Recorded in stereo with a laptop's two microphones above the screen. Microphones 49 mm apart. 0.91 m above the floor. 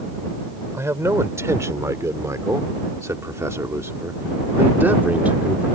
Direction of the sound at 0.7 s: 65° right (ahead or behind).